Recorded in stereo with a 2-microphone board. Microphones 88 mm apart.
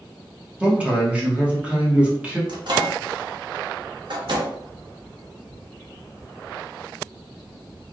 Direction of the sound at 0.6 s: 10° right (ahead or behind).